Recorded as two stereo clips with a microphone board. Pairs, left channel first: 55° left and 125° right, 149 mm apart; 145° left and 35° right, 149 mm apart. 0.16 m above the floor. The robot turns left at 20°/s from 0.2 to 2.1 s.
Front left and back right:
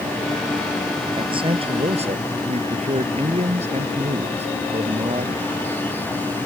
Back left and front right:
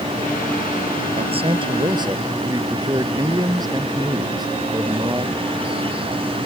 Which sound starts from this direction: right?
A man speaking, at 1.2 s.